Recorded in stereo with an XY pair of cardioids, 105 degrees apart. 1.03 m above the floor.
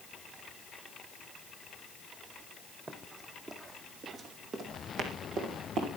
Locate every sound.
2.9 s running footsteps: 30° right, 3 m; by 5.9 s 80° right, 4 m